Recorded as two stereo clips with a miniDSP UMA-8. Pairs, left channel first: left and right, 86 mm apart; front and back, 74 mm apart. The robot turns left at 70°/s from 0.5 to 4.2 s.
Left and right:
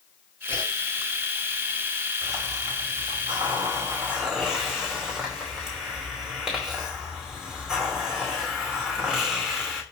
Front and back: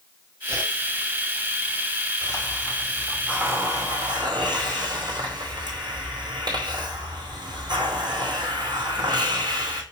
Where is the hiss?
35° right, 4.5 m; by 9.8 s 170° right, 4.5 m.